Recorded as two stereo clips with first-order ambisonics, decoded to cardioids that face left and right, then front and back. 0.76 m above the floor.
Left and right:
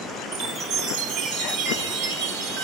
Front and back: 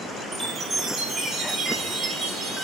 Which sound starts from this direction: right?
A chime, at 0.3 s.